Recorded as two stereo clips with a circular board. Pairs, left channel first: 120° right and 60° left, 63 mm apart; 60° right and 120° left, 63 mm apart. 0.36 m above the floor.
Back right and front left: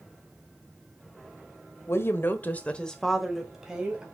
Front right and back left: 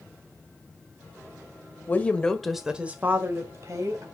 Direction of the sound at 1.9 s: 105° right.